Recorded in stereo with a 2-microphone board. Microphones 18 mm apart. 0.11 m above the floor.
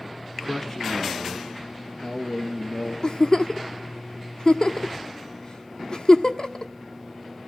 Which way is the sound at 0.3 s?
20° left (ahead or behind).